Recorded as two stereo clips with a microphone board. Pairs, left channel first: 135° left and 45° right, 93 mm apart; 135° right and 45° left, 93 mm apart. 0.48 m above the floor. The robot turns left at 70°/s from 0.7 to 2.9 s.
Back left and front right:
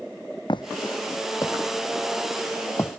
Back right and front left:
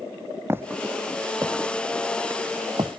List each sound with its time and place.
0.5 s footsteps: 105° left; by 3.0 s 65° left